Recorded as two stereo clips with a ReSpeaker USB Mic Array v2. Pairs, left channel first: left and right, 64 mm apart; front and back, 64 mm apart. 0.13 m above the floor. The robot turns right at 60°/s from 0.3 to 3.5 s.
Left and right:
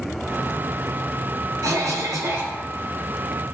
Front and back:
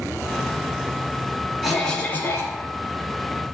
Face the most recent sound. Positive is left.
turn(degrees=20)